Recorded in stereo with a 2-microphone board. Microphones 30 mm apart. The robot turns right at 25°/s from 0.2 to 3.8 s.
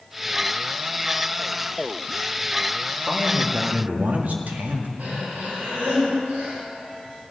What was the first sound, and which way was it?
A man speaking, 80° right.